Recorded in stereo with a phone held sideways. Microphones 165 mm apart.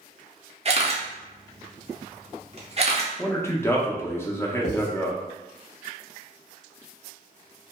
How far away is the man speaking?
About 0.5 m.